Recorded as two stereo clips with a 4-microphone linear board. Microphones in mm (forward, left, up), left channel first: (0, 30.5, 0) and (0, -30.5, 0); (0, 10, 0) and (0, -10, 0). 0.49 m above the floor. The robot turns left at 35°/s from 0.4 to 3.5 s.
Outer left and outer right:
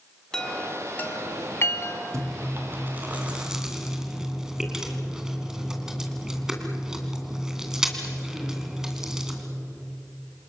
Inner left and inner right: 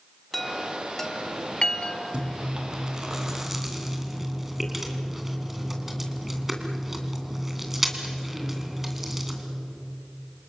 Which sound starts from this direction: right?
Chewing, at 2.1 s.